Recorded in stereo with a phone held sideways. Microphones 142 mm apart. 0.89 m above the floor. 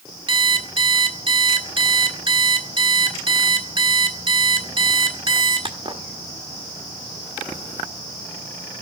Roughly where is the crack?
No crack in this recording.